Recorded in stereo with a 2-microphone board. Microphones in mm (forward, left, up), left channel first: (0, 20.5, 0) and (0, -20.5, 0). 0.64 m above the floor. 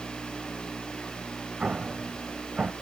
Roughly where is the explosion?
Right.